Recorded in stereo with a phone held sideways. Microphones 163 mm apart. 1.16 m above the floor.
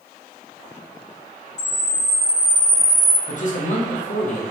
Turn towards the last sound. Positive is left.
turn(degrees=50)  # may be behind; listen again after turning